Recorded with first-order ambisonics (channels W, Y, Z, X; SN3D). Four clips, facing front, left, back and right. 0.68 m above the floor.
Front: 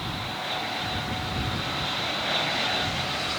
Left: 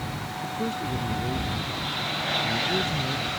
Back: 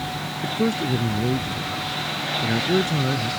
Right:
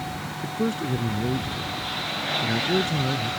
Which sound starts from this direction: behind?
A man speaking, at 0.4 s.